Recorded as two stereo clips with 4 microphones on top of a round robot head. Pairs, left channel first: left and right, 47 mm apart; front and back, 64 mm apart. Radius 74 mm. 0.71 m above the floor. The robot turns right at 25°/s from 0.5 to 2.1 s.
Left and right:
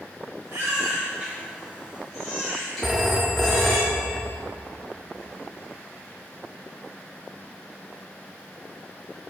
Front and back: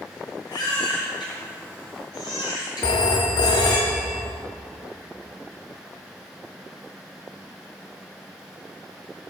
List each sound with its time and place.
0.5 s a baby crying: 35° right, 1.8 m; by 3.8 s 5° left, 1.8 m
2.8 s a phone ringing: 5° right, 0.5 m